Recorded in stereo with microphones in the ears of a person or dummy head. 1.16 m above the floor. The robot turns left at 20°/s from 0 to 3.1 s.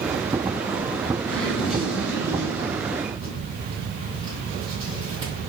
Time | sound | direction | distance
1.3 | a zipper | 5° left (ahead or behind) | 1.5 m